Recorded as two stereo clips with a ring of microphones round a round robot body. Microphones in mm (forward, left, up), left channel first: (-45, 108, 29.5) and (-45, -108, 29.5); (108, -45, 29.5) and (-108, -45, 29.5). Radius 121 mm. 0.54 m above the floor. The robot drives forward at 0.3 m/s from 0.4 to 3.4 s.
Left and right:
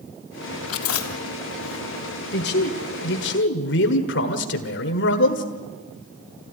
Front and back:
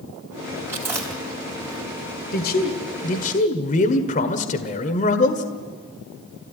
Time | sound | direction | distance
0.7 | chewing | 100° left | 3.5 m
2.3 | a man speaking | 45° left | 1.8 m